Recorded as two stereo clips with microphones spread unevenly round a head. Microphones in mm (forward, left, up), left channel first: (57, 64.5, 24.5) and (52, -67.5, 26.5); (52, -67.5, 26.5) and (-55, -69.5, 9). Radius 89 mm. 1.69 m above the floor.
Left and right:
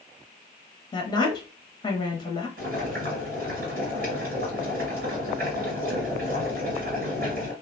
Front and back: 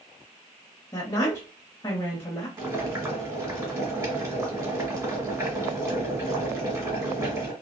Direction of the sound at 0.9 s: 45° left.